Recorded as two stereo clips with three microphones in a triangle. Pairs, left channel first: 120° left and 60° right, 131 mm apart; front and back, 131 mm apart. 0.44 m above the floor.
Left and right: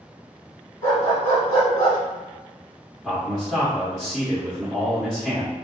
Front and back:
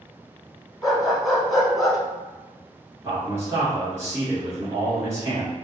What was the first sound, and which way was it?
A dog barking, 90° left.